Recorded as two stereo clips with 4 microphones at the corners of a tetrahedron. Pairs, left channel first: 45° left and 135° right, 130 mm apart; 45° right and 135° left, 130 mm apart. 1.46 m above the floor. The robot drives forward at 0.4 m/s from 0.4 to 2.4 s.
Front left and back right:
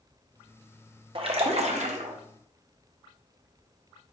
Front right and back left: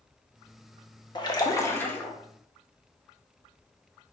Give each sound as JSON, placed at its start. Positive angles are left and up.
{"t": 1.1, "sound": "a splash", "azimuth_deg": -95, "distance_m": 0.7}